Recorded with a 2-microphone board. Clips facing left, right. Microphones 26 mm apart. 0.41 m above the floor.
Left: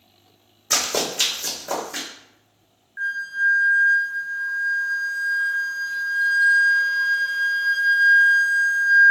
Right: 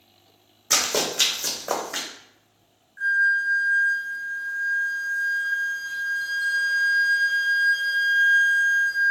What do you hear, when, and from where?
0.7 s running footsteps: centre (ahead or behind), 1.0 m; by 2.1 s 40° right (ahead or behind), 1.0 m
3.0 s a flute: 40° left (ahead or behind), 0.7 m